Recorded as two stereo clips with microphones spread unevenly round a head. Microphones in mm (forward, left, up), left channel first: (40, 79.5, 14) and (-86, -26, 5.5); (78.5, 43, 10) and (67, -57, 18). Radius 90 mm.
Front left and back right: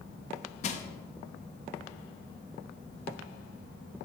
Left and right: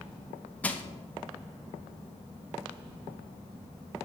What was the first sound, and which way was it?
Crushing, 5° left.